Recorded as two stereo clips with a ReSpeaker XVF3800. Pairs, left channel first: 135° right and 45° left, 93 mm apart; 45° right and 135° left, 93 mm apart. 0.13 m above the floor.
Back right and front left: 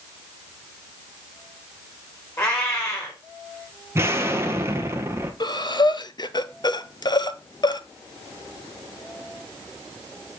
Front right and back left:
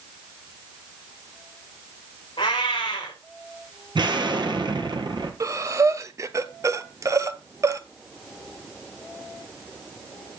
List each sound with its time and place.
2.4 s a cat meowing: 75° right, 4.5 m
4.0 s an explosion: 105° left, 1.2 m
5.4 s breathing: 170° right, 0.5 m